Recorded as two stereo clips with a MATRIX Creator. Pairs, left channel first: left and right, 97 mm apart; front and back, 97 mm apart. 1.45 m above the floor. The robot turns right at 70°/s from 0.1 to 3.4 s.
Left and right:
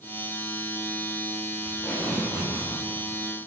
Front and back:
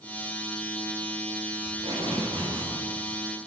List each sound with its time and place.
1.6 s tape being pulled: 150° left, 5 m; by 2.7 s 135° right, 5 m